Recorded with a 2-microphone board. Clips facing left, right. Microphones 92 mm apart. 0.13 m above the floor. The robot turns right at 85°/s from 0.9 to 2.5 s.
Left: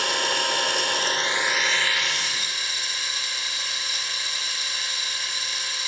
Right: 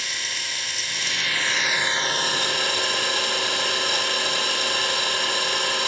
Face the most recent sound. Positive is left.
turn(degrees=-105)